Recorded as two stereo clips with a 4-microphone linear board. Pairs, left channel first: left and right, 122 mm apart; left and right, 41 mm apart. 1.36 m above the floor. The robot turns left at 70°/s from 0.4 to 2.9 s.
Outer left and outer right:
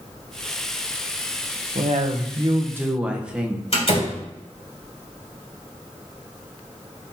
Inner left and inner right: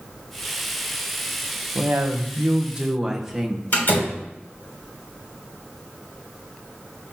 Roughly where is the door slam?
Left.